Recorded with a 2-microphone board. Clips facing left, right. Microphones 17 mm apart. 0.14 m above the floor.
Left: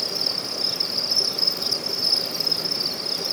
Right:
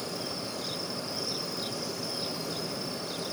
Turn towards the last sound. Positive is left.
turn(degrees=85)